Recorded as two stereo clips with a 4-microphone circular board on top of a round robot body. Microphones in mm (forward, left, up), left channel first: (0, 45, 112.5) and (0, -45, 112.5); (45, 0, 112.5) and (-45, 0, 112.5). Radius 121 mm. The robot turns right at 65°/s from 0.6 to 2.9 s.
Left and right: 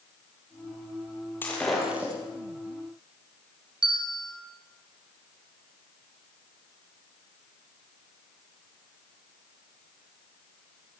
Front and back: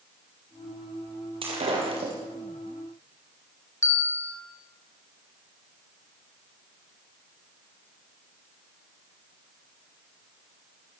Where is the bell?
60° right, 4.5 m.